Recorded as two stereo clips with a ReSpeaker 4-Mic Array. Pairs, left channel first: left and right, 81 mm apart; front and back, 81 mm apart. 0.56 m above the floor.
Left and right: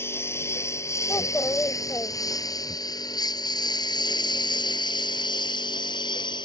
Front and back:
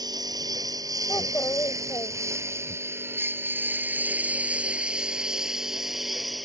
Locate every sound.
0.0 s a lawn mower: 150° left; by 6.5 s 90° left
1.1 s a child speaking: 40° left